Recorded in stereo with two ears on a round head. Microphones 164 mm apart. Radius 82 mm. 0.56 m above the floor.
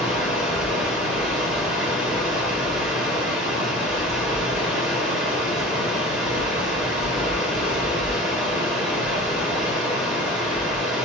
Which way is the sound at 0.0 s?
5° right (ahead or behind).